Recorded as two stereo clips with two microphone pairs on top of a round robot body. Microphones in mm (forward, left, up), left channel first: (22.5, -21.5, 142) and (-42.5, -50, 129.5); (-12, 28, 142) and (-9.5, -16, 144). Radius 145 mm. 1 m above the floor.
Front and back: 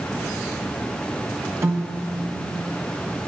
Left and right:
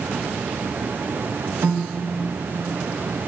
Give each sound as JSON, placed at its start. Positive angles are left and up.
{"t": 1.6, "sound": "a piano", "azimuth_deg": -105, "distance_m": 1.2}